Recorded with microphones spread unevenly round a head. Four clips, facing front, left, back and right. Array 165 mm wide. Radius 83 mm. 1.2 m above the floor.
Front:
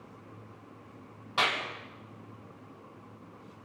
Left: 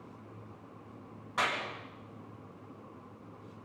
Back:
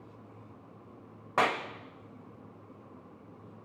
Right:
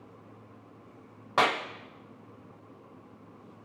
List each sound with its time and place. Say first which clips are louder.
1.4 s a clap: right 7 dB, back 2 dB; 120° right, 1.7 m